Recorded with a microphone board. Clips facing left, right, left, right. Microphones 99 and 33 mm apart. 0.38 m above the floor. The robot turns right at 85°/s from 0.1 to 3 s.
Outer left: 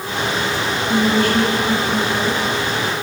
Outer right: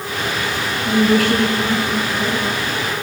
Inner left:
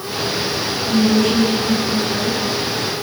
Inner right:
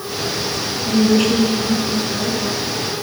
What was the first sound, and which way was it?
A woman speaking, 110° right.